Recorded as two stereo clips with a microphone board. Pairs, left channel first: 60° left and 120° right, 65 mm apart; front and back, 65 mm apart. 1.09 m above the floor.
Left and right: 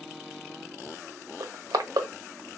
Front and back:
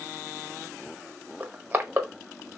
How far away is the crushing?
About 0.7 m.